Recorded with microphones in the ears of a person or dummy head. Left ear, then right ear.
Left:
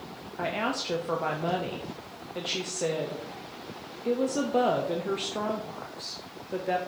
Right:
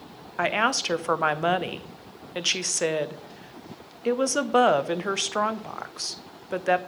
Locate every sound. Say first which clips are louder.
0.4 s a woman speaking: right 7 dB; 50° right (ahead or behind), 0.5 m